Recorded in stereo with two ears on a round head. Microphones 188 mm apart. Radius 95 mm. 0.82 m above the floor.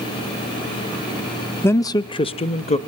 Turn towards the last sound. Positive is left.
turn(degrees=35)  # may be behind; listen again after turning